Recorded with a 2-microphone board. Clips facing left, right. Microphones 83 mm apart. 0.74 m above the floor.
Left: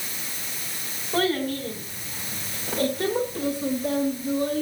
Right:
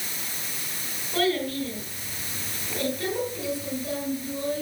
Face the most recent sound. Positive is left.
turn(degrees=50)  # may be behind; listen again after turning